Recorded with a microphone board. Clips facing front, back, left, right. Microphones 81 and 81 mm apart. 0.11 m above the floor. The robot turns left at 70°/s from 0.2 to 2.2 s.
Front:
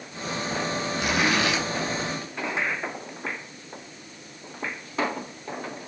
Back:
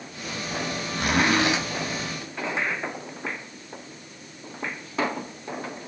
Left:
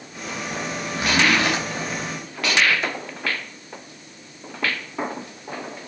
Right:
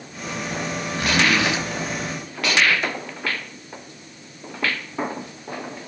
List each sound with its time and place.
0.9 s a zipper: 170° left, 5 m; by 1.6 s 125° left, 5 m